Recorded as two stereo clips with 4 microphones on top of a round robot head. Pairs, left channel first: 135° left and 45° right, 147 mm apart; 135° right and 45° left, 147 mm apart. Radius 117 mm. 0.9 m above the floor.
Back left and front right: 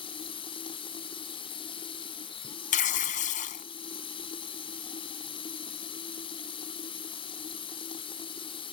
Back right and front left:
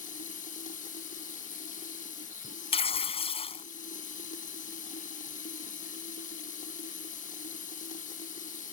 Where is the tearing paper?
175° left.